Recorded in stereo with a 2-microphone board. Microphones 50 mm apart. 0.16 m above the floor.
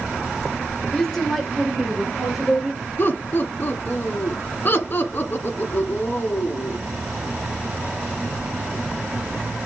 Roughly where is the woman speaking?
Centre.